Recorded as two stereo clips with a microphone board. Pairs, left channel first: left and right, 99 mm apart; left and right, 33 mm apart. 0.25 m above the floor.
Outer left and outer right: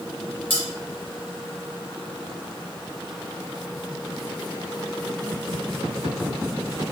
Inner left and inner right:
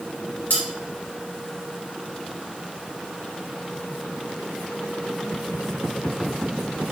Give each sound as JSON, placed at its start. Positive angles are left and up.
{"t": 0.5, "sound": "cutlery clinking", "side_deg": 75, "distance_m": 2.0}